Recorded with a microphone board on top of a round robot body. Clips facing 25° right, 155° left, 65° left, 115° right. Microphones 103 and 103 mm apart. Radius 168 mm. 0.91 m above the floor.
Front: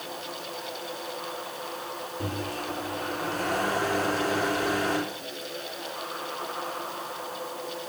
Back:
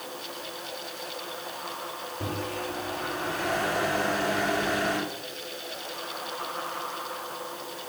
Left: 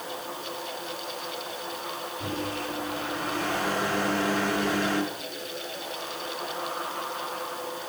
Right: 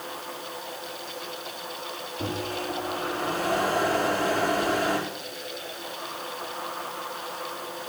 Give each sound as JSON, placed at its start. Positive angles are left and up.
{"t": 2.2, "sound": "a microwave", "azimuth_deg": -65, "distance_m": 4.0}